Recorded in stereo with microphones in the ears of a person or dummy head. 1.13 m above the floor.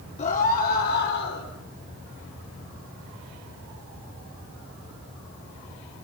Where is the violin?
No violin in this recording.